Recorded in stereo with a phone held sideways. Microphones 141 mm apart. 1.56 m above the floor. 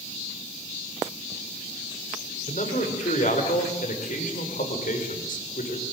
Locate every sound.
2.5 s a man speaking: 65° left (ahead or behind), 6.5 m; by 5.8 s 80° left, 6 m